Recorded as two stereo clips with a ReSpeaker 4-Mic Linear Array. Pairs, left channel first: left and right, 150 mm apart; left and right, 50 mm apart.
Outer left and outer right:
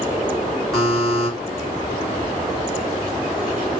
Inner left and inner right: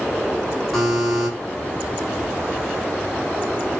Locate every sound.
0.7 s a buzzer: centre (ahead or behind), 2.5 m